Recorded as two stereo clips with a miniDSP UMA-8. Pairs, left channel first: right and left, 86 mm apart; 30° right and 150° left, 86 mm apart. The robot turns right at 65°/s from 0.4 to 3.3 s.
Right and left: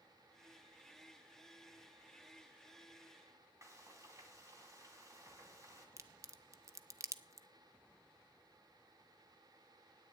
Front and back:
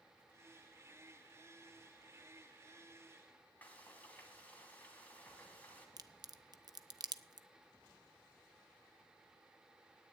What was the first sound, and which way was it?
Frying, 40° left.